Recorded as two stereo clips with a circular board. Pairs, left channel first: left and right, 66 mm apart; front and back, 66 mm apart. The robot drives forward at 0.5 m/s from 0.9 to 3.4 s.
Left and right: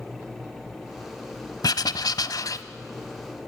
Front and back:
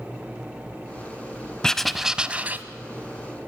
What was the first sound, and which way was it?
Writing, 80° left.